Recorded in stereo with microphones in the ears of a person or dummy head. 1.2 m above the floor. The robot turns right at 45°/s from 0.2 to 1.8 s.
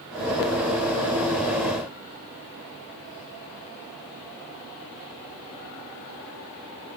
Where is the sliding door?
I don't hear a sliding door.